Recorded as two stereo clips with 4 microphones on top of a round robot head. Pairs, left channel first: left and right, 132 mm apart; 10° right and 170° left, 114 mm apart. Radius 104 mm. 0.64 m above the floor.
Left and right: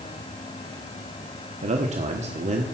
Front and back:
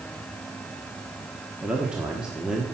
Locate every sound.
1.6 s a man speaking: 105° right, 1.2 m